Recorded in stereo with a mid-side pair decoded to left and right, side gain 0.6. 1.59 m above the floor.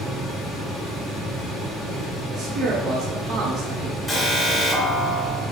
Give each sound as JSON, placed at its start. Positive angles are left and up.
{"t": 0.0, "sound": "a fan", "azimuth_deg": 45, "distance_m": 1.2}
{"t": 2.3, "sound": "a man speaking", "azimuth_deg": -50, "distance_m": 0.6}
{"t": 4.1, "sound": "an alarm", "azimuth_deg": 10, "distance_m": 1.5}